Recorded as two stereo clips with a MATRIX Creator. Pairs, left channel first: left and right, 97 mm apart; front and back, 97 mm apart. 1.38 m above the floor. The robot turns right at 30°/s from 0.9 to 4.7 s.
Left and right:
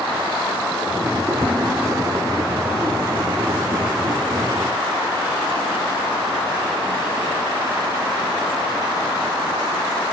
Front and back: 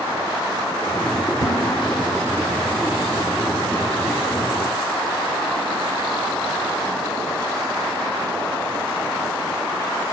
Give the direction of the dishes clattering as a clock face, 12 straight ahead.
2 o'clock.